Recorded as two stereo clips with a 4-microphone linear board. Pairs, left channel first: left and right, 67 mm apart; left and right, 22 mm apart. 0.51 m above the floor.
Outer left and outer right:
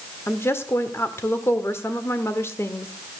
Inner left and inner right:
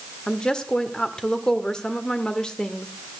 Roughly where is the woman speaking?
Left.